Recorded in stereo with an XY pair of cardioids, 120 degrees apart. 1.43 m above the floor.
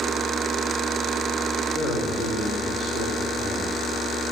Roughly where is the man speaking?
Ahead right.